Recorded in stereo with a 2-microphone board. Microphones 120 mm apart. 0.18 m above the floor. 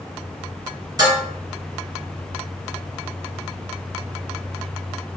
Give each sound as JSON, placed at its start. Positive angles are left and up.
{"t": 1.0, "sound": "dishes clattering", "side_deg": -30, "distance_m": 1.8}